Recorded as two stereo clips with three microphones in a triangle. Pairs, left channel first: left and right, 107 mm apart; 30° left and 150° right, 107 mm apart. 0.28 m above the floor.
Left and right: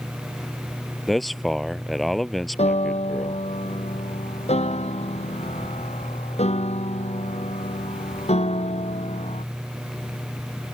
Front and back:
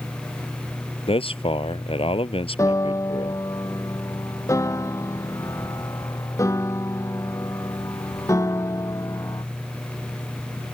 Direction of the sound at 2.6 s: 90° left.